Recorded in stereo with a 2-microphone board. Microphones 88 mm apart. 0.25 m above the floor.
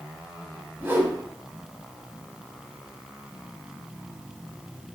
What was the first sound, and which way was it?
A whoosh, 25° right (ahead or behind).